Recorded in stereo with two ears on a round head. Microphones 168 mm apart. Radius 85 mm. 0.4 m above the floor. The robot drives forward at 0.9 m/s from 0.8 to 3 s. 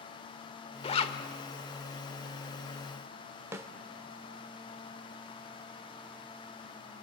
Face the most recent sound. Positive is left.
turn(degrees=-15)  # may be behind; listen again after turning